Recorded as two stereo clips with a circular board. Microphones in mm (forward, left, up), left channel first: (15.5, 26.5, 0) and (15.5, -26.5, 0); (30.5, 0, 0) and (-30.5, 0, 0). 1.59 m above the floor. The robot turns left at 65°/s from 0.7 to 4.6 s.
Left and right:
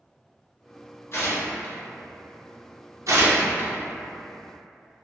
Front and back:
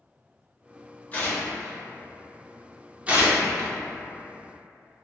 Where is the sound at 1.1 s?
60° left, 0.7 m; by 1.8 s 20° left, 0.7 m.